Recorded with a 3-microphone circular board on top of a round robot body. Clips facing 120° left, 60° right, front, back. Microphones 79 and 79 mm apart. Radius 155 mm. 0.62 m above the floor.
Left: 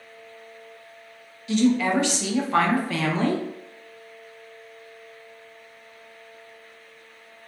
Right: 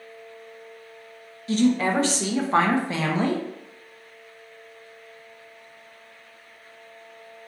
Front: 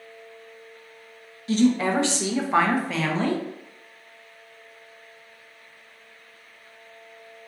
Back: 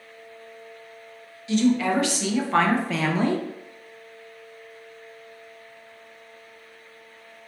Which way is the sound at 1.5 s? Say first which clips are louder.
Even, even; 25° right.